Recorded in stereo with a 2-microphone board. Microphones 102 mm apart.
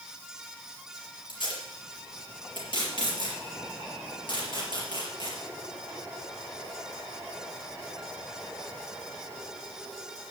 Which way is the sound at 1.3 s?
50° left (ahead or behind).